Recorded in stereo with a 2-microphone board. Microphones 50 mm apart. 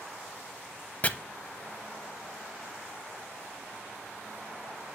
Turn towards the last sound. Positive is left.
turn(degrees=30)  # may be behind; listen again after turning